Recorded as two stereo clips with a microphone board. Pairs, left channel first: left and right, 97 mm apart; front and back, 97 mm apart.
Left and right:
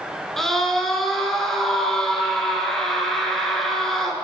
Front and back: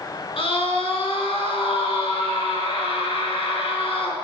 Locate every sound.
0.4 s a scream: 5° left, 3 m